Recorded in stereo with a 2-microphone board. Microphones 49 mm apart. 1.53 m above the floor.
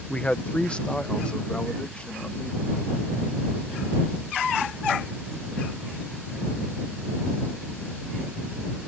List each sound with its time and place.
0.1 s a man speaking: 25° left (ahead or behind)